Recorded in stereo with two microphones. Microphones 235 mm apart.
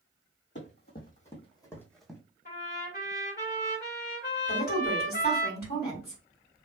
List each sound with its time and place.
0.6 s running footsteps: 50° left (ahead or behind), 1.2 m; by 2.2 s 5° right (ahead or behind), 1.1 m
2.5 s a trumpet: 45° left (ahead or behind), 1.7 m
4.5 s a woman speaking: 45° left (ahead or behind), 1.7 m